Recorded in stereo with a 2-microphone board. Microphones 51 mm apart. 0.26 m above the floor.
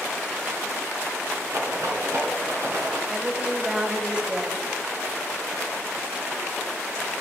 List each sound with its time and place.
1.5 s a rattle: 70° right (ahead or behind), 2.5 m
3.1 s a woman speaking: 15° right (ahead or behind), 1.1 m